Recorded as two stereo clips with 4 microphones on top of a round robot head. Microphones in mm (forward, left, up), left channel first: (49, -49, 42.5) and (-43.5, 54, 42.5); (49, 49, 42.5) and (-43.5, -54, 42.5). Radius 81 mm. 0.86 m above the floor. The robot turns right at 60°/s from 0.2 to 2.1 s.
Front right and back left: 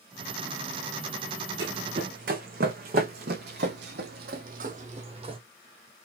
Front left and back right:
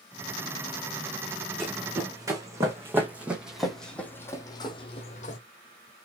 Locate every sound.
1.6 s running footsteps: 135° left, 3 m; by 5.4 s 80° left, 1.6 m